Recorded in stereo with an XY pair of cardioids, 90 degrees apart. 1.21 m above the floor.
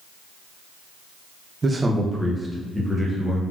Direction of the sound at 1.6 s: 35° right.